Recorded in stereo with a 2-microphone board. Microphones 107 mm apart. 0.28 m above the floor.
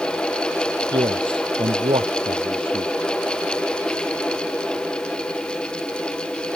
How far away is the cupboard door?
No cupboard door in this recording.